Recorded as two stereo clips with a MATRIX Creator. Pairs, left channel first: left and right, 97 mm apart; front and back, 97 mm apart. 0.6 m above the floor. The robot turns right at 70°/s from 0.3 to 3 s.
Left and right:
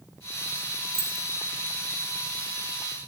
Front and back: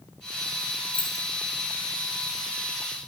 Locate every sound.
0.9 s keys jangling: 25° left, 4 m; by 1.2 s 45° left, 4 m